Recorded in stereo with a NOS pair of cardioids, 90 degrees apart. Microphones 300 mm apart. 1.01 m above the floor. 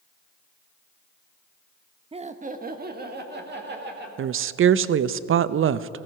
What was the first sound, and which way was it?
Laughter, 20° right.